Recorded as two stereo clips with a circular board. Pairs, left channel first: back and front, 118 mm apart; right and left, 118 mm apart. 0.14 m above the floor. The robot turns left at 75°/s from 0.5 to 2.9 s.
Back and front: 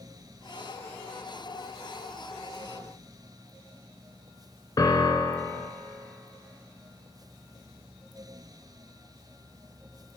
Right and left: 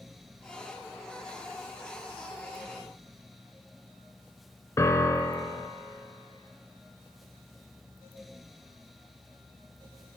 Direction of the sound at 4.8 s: 145° right.